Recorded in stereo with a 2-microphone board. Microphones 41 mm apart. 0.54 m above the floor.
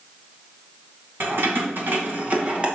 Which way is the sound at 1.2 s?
60° right (ahead or behind).